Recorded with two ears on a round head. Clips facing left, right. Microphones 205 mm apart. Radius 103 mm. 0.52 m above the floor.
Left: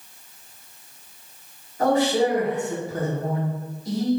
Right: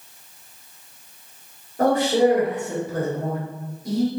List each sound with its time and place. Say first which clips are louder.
1.8 s a man speaking: right 2 dB; 45° right (ahead or behind), 2.5 m